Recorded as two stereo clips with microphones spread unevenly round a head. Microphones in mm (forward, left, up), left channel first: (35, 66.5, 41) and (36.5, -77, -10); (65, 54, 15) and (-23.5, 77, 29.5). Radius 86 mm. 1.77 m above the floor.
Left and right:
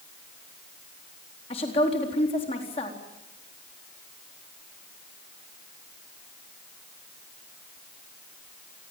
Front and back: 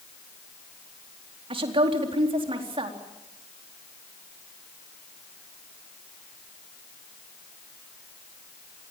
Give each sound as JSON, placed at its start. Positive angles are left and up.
{"t": 1.5, "sound": "a woman speaking", "azimuth_deg": 150, "distance_m": 4.0}